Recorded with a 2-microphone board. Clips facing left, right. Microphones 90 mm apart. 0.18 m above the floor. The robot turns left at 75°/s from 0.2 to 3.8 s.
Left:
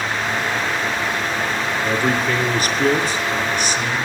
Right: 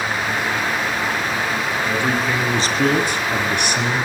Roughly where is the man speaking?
Ahead left.